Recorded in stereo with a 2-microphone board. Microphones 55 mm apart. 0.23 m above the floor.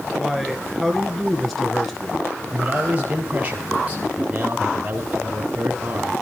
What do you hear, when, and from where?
0.1 s a man speaking: 5° left (ahead or behind), 3 m
2.5 s a man speaking: 30° right (ahead or behind), 3.5 m